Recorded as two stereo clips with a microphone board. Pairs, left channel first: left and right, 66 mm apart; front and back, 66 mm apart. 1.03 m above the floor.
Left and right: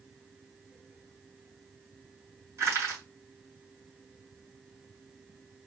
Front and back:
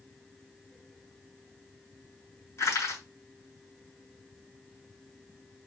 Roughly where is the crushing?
Ahead right.